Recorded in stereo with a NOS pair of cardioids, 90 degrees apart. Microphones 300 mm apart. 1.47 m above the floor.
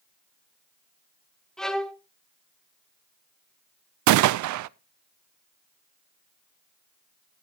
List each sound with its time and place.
1.6 s a violin: straight ahead, 1.5 m
4.1 s a gunshot: 65° right, 0.5 m